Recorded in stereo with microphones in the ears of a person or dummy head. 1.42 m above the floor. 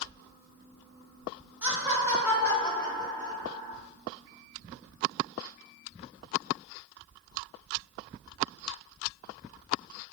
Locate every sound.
1.6 s laughter: 10° right (ahead or behind), 2 m; by 3.8 s 15° right (ahead or behind), 5 m